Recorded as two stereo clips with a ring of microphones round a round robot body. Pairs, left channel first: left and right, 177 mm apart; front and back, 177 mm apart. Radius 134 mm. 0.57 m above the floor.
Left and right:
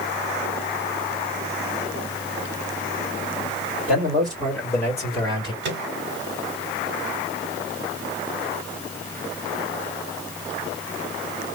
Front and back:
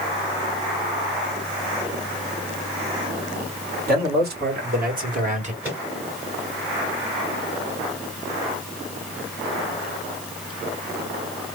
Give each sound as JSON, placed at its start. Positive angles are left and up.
{"t": 3.9, "sound": "a man speaking", "azimuth_deg": -175, "distance_m": 2.5}
{"t": 5.6, "sound": "a microwave", "azimuth_deg": -100, "distance_m": 1.5}